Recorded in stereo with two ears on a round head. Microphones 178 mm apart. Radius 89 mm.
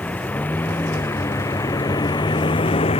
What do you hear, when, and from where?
0.0 s a vehicle: 5° left (ahead or behind); by 3.0 s 30° left (ahead or behind)